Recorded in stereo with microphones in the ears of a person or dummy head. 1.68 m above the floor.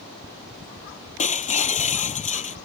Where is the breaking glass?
35° left (ahead or behind).